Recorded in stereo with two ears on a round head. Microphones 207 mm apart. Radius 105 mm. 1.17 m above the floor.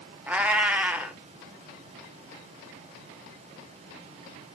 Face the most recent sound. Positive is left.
turn(degrees=-5)  # may be behind; listen again after turning